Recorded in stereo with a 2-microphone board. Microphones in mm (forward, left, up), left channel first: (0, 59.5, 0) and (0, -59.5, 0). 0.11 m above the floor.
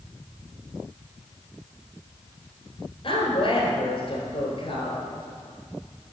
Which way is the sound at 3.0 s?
45° left (ahead or behind).